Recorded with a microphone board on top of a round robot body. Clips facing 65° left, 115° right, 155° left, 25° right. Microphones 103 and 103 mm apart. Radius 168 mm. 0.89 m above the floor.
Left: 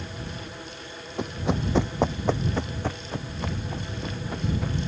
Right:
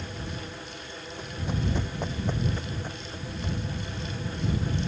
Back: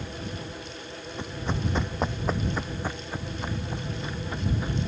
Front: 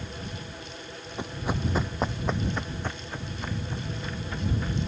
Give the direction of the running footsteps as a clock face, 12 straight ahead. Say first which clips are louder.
Left 6 dB, front 1 dB; 10 o'clock.